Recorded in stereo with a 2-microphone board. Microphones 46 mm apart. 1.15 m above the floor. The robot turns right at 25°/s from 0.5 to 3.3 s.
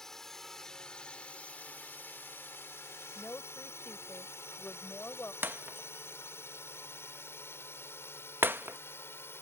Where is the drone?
5° left (ahead or behind); by 9.4 s 60° left (ahead or behind).